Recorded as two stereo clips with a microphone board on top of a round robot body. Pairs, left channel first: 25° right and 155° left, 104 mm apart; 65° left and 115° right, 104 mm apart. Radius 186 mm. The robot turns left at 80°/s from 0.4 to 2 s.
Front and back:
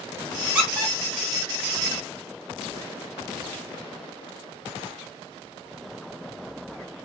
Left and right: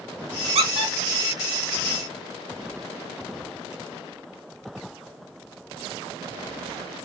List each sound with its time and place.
0.6 s a squeak: 125° right, 1.4 m; by 0.9 s 160° right, 1.4 m